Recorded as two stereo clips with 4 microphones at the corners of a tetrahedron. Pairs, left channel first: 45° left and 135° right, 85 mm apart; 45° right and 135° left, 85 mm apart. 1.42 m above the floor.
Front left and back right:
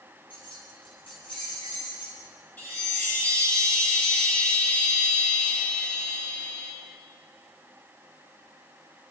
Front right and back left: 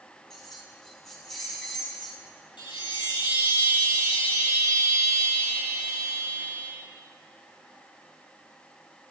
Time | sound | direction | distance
0.3 | keys jangling | 40° left | 7 m
2.6 | a chime | 25° right | 9.5 m